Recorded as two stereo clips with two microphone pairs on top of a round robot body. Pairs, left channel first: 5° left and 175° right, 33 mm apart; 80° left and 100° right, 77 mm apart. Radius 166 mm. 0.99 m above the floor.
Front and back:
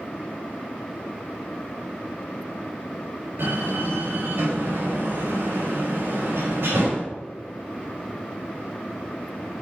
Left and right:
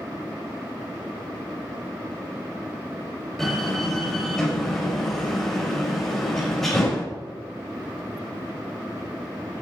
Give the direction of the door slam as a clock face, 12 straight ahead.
6 o'clock.